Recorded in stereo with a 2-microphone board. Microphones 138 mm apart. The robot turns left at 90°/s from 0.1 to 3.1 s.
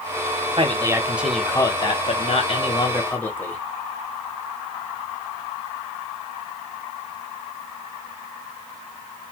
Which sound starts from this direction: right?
A man speaking, at 0.6 s.